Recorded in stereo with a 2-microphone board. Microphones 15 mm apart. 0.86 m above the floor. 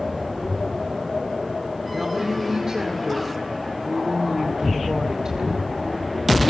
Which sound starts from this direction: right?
A woman speaking, at 1.9 s.